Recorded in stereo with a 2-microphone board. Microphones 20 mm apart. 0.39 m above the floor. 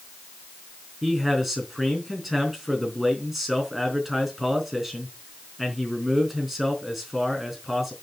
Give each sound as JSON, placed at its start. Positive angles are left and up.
{"t": 1.0, "sound": "a man speaking", "side_deg": -5, "distance_m": 4.0}